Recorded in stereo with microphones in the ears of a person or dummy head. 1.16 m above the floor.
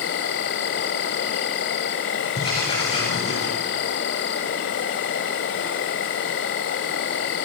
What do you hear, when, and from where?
0.0 s an insect: 45° left (ahead or behind), 1.3 m
2.4 s writing: 30° left (ahead or behind), 8 m